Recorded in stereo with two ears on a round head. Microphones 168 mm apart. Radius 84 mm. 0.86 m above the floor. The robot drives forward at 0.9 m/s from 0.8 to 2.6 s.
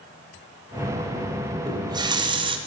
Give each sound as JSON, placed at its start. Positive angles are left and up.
{"t": 1.7, "sound": "a running tap", "side_deg": -20, "distance_m": 3.5}